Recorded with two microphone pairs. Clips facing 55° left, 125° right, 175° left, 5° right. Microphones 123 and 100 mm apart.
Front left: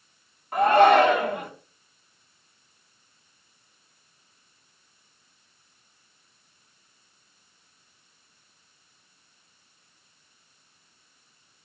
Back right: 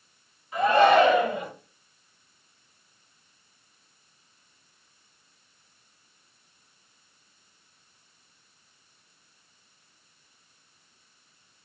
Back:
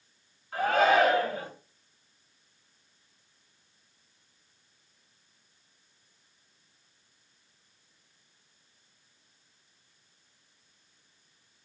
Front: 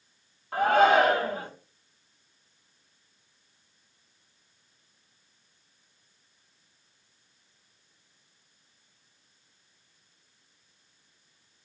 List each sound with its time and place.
0.5 s a shout: 20° left, 5.5 m